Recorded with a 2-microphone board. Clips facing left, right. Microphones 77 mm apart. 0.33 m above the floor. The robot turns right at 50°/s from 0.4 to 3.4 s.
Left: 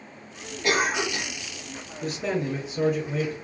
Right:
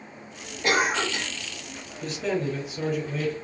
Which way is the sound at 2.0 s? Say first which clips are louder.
Even; 25° left.